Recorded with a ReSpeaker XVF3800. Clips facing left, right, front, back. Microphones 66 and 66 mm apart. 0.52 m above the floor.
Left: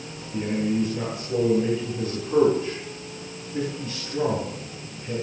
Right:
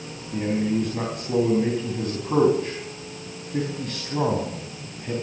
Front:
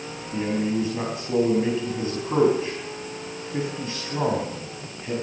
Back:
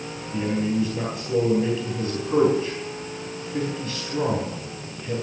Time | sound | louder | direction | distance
0.3 | a man speaking | right 1 dB, even | 60° right | 4.5 m